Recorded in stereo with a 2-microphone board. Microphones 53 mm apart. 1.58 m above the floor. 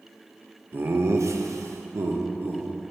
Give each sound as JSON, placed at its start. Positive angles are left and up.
{"t": 0.7, "sound": "laughter", "side_deg": -40, "distance_m": 0.8}